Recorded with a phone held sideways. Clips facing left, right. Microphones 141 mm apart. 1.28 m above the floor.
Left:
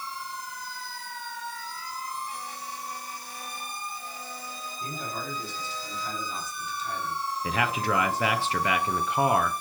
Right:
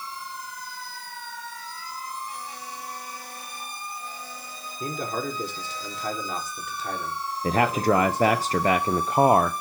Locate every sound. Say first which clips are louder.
4.8 s a man speaking: right 7 dB; 85° right, 4 m
7.4 s a man speaking: right 7 dB; 40° right (ahead or behind), 0.6 m